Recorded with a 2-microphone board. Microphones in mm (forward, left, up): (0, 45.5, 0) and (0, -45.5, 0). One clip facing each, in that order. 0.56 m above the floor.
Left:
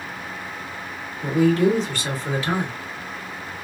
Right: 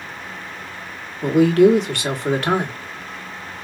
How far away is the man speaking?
About 1.3 m.